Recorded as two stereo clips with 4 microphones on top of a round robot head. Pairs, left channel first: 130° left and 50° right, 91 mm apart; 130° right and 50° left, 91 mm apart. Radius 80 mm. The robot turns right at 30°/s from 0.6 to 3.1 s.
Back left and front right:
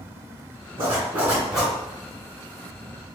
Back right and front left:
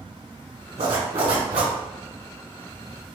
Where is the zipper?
15° left, 1.7 m; by 1.7 s 40° left, 1.7 m.